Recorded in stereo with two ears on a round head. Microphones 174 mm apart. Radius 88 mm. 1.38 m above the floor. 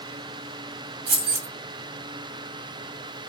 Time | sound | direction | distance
1.1 | keys jangling | 60° right (ahead or behind) | 1.1 m